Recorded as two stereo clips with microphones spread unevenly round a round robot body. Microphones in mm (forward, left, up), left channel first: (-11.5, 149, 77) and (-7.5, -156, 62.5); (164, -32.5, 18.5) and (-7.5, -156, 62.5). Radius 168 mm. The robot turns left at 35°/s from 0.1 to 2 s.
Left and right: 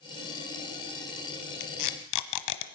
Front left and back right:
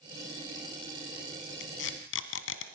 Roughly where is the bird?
No bird in this recording.